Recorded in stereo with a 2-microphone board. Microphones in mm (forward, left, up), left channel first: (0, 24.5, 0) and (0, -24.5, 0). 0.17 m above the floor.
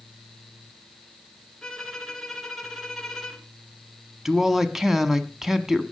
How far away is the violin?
About 2.5 m.